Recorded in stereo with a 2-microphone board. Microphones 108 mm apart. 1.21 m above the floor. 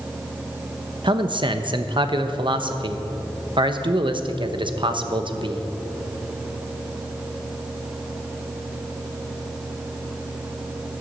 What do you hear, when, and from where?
1.0 s a man speaking: 50° right (ahead or behind), 0.9 m